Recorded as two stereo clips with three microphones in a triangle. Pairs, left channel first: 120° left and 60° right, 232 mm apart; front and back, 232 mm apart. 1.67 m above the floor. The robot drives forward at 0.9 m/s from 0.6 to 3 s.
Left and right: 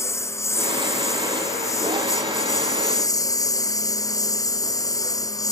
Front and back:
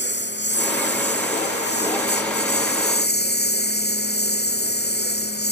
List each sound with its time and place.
0.0 s a lawn mower: 40° left; by 5.5 s 45° left